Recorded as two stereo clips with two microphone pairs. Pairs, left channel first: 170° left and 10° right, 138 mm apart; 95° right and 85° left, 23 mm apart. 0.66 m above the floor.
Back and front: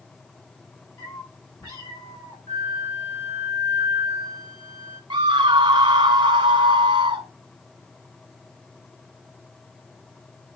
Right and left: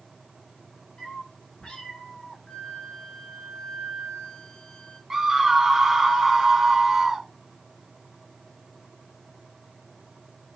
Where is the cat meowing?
135° right, 8 m.